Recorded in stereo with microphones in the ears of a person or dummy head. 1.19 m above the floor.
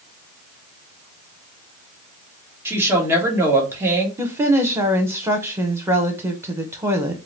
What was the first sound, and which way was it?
A woman speaking, 15° right (ahead or behind).